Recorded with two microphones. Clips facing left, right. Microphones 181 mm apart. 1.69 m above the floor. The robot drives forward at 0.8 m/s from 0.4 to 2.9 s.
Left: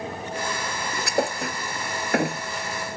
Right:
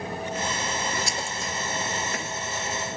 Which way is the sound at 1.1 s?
60° left (ahead or behind).